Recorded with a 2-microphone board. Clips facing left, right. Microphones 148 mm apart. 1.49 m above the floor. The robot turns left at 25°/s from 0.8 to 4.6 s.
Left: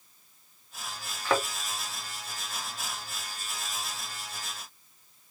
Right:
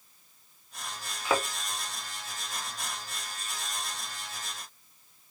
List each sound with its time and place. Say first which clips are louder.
1.2 s a thud: left 1 dB; 10° right (ahead or behind), 1.9 m; by 1.4 s 5° right (ahead or behind), 1.9 m